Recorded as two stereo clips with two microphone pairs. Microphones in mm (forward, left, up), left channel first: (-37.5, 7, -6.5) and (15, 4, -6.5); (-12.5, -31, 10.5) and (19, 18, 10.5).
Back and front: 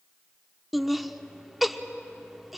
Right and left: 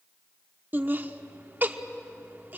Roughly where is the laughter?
Left.